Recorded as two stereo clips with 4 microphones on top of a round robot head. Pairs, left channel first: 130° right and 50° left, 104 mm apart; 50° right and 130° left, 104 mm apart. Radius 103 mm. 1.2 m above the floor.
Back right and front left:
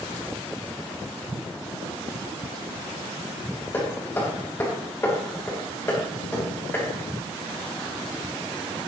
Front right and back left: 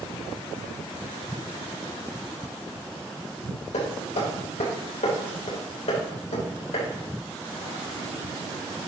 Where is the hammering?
65° right, 3 m.